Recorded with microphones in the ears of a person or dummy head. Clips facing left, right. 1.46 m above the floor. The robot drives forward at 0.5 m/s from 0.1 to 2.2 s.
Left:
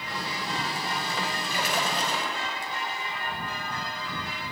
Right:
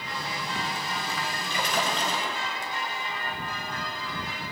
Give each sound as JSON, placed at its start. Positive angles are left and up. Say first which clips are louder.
{"t": 1.5, "sound": "a splash", "louder": "right 2 dB", "side_deg": 5, "distance_m": 6.5}